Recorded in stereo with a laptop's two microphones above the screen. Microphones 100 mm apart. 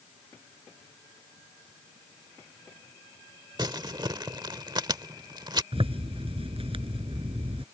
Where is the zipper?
70° right (ahead or behind).